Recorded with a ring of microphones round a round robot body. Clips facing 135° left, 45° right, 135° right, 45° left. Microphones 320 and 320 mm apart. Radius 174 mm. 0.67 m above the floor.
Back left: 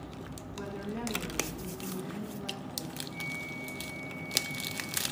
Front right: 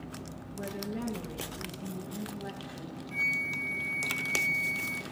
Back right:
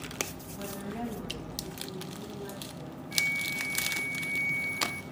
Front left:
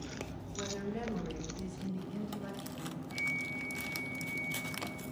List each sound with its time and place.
0.5 s a woman speaking: 70° left, 2.5 m; by 2.9 s 35° left, 3.5 m
3.1 s a flute: 100° right, 0.5 m